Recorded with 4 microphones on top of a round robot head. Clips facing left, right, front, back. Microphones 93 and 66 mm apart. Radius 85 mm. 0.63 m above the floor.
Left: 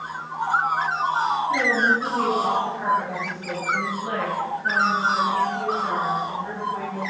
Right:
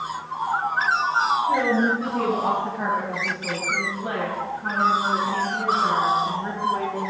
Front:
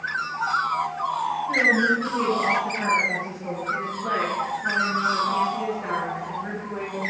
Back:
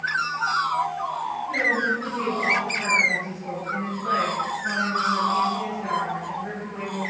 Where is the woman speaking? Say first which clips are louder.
Right 1 dB, front 3 dB; 70° right, 4 m; by 7.0 s 75° right, 7 m.